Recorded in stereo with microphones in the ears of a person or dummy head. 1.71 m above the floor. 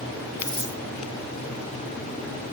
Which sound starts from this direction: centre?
A dropped coin, at 0.4 s.